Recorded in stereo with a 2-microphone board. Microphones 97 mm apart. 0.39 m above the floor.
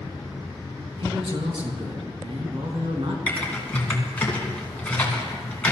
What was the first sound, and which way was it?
A man speaking, 70° right (ahead or behind).